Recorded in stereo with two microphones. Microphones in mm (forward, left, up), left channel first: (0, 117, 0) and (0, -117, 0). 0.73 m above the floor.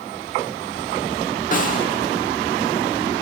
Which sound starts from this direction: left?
A snare drum, at 1.5 s.